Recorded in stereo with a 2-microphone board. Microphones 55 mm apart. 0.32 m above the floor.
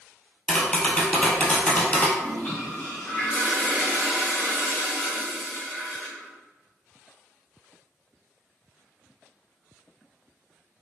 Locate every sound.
0.5 s tapping: 20° left (ahead or behind), 1.1 m
2.2 s a toilet flushing: 30° left (ahead or behind), 1.9 m